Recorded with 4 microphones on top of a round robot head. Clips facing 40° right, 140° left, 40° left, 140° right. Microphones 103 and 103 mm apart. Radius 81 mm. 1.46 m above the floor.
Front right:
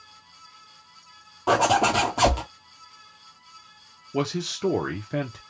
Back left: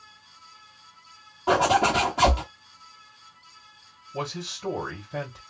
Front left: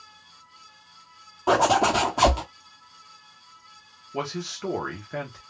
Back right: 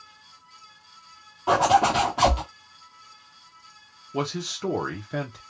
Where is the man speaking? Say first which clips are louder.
Front right 6 dB, back right 2 dB; 60° right, 0.9 m.